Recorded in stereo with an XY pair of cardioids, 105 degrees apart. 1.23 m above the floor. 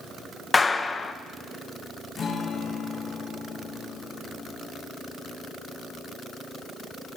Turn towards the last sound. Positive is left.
turn(degrees=50)